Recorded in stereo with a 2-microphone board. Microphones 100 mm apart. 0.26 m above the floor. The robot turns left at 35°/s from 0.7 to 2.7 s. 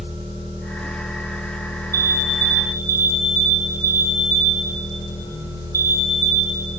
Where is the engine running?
165° right, 9 m; by 6.8 s 125° left, 9 m.